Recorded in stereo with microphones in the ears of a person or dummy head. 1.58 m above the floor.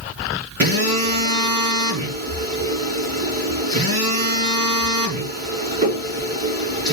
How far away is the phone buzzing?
About 5.5 m.